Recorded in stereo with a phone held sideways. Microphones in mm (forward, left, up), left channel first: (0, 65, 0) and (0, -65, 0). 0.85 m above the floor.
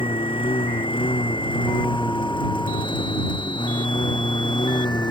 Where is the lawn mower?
40° left (ahead or behind); by 5.1 s 35° left (ahead or behind).